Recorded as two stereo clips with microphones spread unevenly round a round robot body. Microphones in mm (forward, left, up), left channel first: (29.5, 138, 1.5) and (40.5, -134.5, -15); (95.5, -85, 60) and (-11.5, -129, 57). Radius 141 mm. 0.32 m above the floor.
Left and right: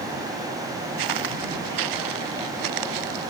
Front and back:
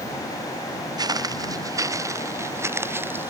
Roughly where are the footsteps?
Right.